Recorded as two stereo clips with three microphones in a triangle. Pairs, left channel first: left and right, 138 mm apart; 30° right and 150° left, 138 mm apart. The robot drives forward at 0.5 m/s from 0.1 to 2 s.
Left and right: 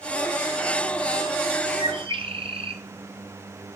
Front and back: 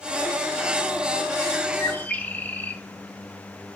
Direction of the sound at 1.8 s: 90° right.